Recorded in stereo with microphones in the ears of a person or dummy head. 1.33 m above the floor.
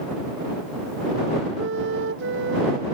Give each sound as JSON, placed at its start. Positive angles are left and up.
{"t": 1.6, "sound": "a flute", "side_deg": -75}